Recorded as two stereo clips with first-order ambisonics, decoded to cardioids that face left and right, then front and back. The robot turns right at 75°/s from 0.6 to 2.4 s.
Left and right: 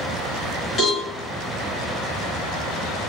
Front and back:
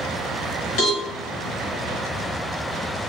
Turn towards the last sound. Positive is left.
turn(degrees=145)